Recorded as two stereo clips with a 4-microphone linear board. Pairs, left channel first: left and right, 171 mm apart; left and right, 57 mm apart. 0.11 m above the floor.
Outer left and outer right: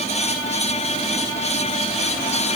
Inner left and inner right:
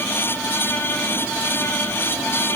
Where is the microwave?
No microwave in this recording.